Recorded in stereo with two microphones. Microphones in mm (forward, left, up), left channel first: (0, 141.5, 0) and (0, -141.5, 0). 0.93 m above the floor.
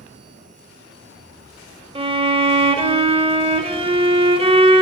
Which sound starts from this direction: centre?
A violin, at 1.9 s.